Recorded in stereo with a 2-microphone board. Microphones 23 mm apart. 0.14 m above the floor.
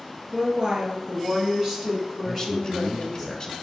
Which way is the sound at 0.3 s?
40° right (ahead or behind).